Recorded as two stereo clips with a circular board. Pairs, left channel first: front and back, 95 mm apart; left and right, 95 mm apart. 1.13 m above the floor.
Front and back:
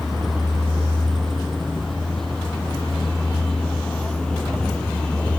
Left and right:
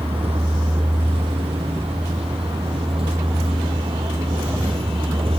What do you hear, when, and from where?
0.0 s a vehicle: 90° right; by 5.4 s 80° right